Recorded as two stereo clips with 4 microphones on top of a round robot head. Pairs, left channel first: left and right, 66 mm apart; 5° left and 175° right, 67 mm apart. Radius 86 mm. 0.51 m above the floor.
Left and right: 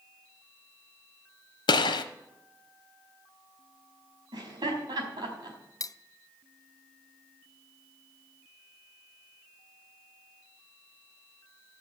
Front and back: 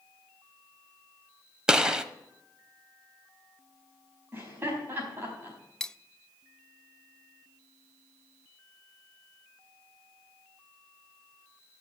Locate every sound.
1.7 s a gunshot: 105° left, 0.8 m
4.3 s laughter: 110° right, 4.5 m
5.8 s cutlery clinking: 90° left, 0.5 m